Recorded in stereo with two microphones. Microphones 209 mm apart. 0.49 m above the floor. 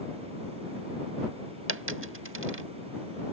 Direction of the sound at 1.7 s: 75° right (ahead or behind).